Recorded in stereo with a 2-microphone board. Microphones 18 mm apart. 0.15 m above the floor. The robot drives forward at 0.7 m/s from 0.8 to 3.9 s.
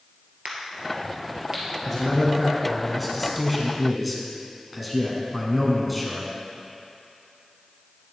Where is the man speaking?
5° right (ahead or behind), 1.6 m.